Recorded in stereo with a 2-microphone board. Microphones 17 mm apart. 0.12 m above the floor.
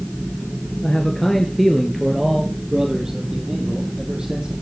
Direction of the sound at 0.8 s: 30° left (ahead or behind).